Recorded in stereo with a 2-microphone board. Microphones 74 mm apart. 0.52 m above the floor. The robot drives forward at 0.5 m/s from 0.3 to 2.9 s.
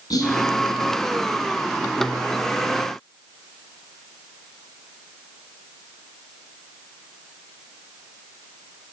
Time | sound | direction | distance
0.1 | whispering | 70° left (ahead or behind) | 4 m